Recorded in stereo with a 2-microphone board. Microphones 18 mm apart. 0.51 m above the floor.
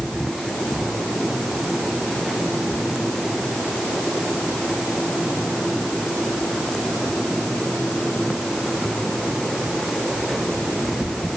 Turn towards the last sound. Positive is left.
No sound to turn to.